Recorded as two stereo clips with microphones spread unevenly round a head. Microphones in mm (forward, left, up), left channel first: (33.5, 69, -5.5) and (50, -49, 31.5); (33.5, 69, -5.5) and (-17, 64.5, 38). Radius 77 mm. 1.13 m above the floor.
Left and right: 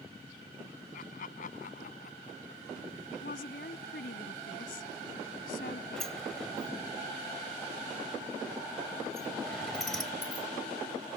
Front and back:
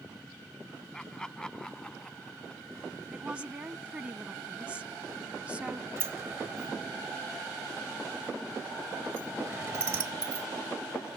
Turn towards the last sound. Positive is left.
turn(degrees=-165)